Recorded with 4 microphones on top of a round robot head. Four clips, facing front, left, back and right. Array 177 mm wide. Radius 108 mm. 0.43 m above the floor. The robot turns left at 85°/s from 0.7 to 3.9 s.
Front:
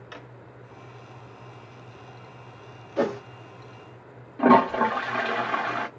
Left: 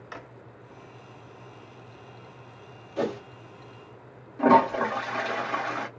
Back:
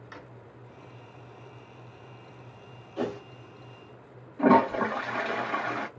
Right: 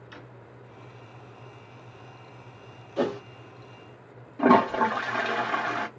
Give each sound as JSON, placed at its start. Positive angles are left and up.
{"t": 0.1, "sound": "a drawer", "azimuth_deg": 65, "distance_m": 0.8}
{"t": 3.0, "sound": "a whoosh", "azimuth_deg": -15, "distance_m": 1.2}
{"t": 4.4, "sound": "a toilet flushing", "azimuth_deg": -30, "distance_m": 1.3}